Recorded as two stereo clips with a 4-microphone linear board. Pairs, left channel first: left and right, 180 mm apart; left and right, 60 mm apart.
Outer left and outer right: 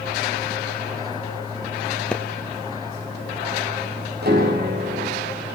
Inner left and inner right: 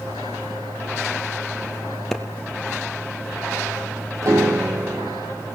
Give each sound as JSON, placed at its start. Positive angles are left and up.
{"t": 2.1, "sound": "a clap", "side_deg": 5, "distance_m": 2.5}
{"t": 4.2, "sound": "a piano", "side_deg": -65, "distance_m": 7.5}